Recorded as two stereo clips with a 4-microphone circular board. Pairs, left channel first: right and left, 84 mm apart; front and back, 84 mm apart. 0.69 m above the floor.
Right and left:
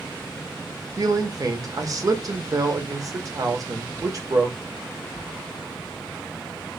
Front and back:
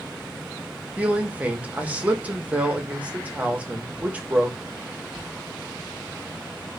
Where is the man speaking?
110° left, 0.7 m.